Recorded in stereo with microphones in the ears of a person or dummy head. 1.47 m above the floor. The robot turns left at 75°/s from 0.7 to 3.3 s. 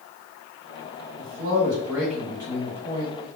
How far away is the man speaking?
About 2.5 m.